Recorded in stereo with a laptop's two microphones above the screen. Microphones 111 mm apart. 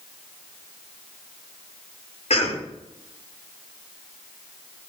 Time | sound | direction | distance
2.3 | a cough | 75° left (ahead or behind) | 4 m